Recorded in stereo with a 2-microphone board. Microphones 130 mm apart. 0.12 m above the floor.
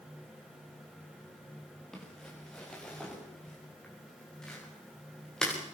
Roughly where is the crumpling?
Centre.